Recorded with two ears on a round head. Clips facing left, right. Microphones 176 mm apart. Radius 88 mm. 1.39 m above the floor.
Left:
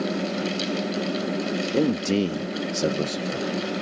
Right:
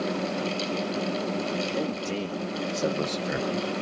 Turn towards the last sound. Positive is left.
turn(degrees=-55)  # may be behind; listen again after turning